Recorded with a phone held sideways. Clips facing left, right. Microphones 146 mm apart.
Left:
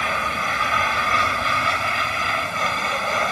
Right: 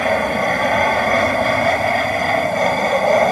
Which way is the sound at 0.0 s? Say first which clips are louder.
Right 9 dB; 55° right (ahead or behind).